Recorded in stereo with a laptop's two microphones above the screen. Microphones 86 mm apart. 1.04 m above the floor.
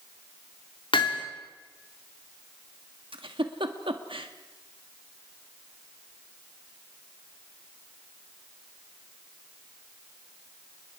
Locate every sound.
0.9 s hammering: 75° left (ahead or behind), 2.5 m
3.1 s a giggle: 80° right, 1.6 m